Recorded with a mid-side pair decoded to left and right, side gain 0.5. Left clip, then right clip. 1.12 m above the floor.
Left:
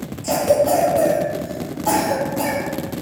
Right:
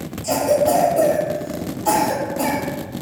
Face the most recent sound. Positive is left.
turn(degrees=-25)